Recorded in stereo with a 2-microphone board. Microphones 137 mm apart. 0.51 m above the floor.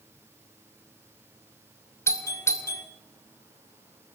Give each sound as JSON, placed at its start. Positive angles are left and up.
{"t": 2.1, "sound": "a doorbell", "side_deg": 20, "distance_m": 1.5}